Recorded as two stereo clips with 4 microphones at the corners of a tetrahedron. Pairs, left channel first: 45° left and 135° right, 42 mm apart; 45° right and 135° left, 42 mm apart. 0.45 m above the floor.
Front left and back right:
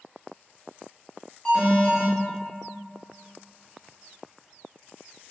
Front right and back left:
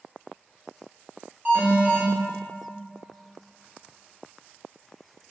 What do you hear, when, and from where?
1.4 s an alarm: 95° left, 1.3 m